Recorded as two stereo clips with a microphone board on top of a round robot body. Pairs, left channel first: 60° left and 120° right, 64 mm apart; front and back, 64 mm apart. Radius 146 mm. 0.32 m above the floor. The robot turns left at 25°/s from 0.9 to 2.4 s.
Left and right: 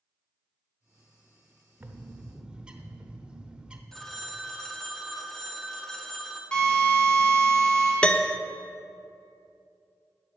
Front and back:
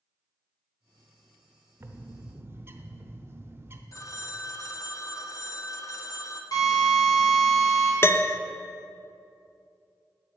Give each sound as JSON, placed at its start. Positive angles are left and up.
{"t": 1.8, "sound": "a bird", "azimuth_deg": -170, "distance_m": 0.9}
{"t": 3.9, "sound": "a phone ringing", "azimuth_deg": -25, "distance_m": 0.8}
{"t": 6.5, "sound": "a drill", "azimuth_deg": -15, "distance_m": 2.5}
{"t": 8.0, "sound": "a piano", "azimuth_deg": -5, "distance_m": 0.6}